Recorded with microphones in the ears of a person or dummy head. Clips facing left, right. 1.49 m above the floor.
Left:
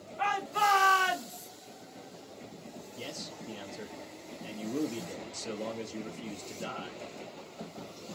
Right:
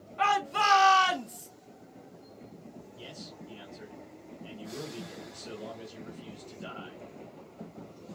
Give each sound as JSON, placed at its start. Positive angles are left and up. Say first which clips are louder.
{"t": 0.2, "sound": "a shout", "louder": "right 2 dB", "side_deg": -60, "distance_m": 1.7}
{"t": 3.0, "sound": "a man speaking", "louder": "left 5 dB", "side_deg": 75, "distance_m": 0.7}